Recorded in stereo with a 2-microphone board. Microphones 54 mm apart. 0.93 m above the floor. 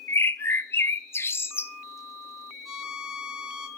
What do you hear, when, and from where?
0.1 s a bird: 45° left (ahead or behind), 0.8 m
2.6 s a violin: 5° right (ahead or behind), 1.6 m